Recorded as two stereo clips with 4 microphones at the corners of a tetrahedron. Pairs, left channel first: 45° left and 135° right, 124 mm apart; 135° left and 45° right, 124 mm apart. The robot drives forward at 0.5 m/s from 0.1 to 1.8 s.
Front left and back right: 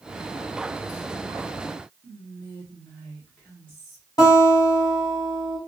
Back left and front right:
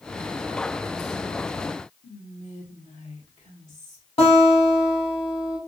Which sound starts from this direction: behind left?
Whispering, at 2.0 s.